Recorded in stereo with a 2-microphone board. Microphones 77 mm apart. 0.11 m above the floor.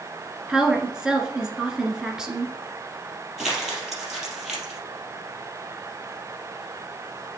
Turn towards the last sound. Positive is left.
turn(degrees=-5)  # may be behind; listen again after turning